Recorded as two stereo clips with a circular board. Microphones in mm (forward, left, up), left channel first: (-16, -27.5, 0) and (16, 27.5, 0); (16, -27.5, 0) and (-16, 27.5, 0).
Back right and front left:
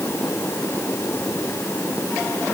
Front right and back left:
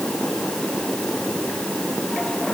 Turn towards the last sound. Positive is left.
No sound to turn to.